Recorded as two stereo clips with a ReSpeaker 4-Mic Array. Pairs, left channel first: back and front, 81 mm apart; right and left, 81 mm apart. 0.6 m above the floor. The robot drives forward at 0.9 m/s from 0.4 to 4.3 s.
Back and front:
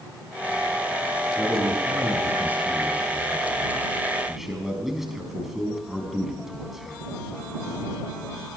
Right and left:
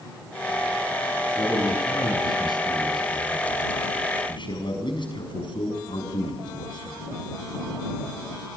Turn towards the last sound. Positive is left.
turn(degrees=-85)